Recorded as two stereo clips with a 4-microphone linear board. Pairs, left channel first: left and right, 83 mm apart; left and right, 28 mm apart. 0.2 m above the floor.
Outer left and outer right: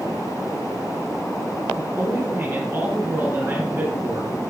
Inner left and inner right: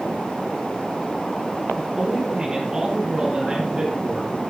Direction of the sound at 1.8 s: 30° right (ahead or behind).